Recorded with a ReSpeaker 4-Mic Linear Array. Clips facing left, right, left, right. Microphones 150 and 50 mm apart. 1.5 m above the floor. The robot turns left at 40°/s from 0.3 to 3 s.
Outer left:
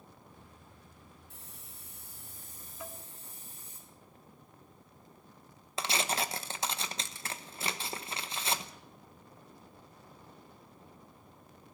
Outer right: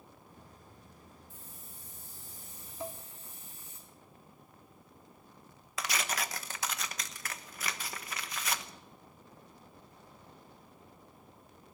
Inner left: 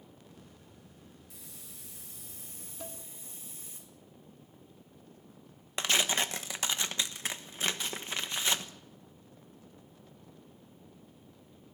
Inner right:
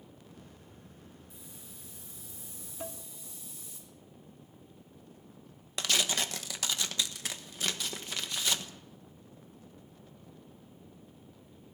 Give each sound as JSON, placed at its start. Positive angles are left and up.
{"t": 1.3, "sound": "a hiss", "azimuth_deg": 105, "distance_m": 8.0}
{"t": 2.8, "sound": "dishes clattering", "side_deg": -25, "distance_m": 2.0}
{"t": 5.8, "sound": "tearing paper", "side_deg": 30, "distance_m": 1.1}